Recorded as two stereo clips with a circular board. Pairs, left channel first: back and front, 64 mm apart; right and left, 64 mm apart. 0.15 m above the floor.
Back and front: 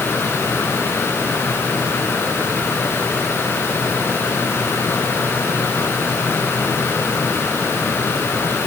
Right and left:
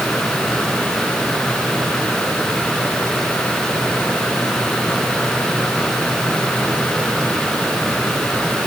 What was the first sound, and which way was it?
Only background noise.